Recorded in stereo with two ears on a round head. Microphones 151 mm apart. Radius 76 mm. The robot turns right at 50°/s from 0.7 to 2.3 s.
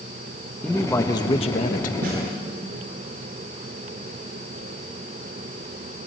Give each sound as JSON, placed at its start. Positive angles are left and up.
{"t": 0.6, "sound": "a man speaking", "azimuth_deg": 5, "distance_m": 1.3}
{"t": 2.0, "sound": "a snare drum", "side_deg": -60, "distance_m": 8.5}